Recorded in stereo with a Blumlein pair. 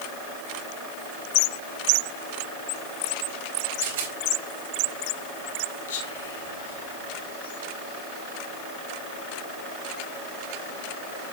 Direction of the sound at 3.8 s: 60° right.